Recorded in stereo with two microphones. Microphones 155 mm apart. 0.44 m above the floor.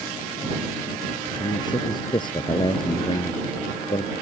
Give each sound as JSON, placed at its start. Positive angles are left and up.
{"t": 1.4, "sound": "a man speaking", "side_deg": 25}